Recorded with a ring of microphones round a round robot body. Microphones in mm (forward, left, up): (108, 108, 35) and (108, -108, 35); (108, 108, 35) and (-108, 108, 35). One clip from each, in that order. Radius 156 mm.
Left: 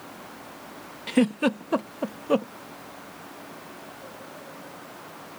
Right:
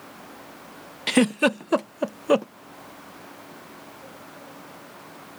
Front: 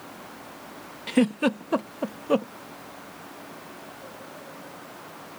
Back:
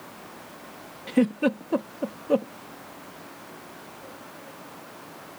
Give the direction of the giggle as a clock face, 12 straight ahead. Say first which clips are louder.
Right 3 dB, even; 2 o'clock.